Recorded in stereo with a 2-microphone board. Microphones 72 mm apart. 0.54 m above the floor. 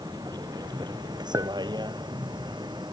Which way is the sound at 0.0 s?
70° right (ahead or behind).